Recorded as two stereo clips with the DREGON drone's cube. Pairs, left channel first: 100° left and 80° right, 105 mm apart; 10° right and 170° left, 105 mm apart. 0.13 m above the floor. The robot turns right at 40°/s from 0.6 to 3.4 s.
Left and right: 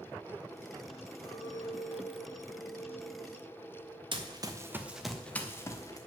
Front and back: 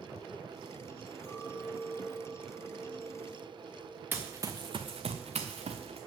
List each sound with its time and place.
1.2 s a clink: 70° left, 3 m; by 4.0 s 155° left, 3 m
4.1 s running footsteps: 120° right, 1.0 m; by 6.0 s 155° left, 1.3 m